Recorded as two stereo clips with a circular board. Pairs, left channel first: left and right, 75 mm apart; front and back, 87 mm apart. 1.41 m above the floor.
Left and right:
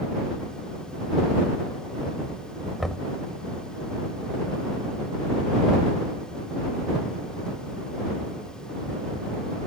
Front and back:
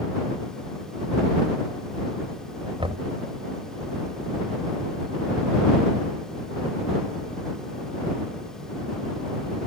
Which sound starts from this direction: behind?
Knocking, at 2.8 s.